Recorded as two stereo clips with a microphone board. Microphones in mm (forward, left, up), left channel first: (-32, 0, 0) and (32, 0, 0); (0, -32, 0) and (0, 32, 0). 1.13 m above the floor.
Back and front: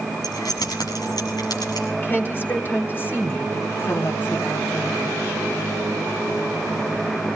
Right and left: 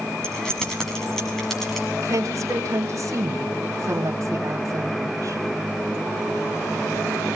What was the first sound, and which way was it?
Keys jangling, 170° right.